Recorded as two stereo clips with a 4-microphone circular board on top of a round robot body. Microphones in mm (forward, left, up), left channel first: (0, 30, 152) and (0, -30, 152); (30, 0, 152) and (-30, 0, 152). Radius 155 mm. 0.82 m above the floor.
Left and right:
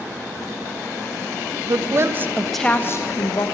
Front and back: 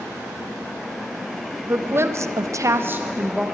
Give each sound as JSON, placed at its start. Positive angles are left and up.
{"t": 1.7, "sound": "a woman speaking", "azimuth_deg": -125, "distance_m": 1.0}